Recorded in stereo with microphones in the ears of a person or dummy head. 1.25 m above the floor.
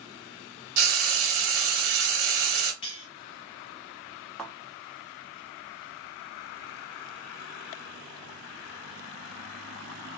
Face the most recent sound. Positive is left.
turn(degrees=0)  # may be behind; listen again after turning